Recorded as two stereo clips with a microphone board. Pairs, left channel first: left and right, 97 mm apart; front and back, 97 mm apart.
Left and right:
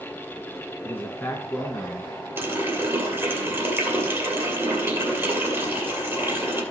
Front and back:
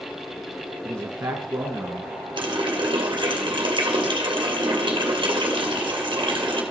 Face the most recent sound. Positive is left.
turn(degrees=-155)